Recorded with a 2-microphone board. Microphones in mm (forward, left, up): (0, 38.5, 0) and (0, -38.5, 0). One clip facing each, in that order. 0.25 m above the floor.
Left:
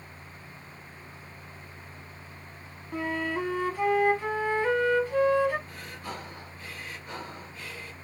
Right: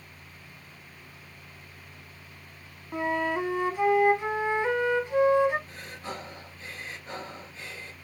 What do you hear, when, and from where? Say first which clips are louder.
2.9 s a flute: right 3 dB; 20° right (ahead or behind), 0.8 m
5.7 s breathing: even; 25° right (ahead or behind), 2 m